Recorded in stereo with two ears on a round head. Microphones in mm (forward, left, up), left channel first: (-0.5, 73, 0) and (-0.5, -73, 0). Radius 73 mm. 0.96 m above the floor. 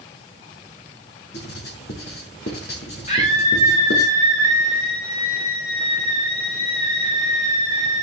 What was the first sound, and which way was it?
Writing, 75° left (ahead or behind).